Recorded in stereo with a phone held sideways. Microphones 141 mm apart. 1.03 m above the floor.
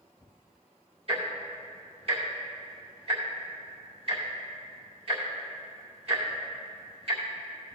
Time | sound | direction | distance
1.1 | ticking | 45° right (ahead or behind) | 2.5 m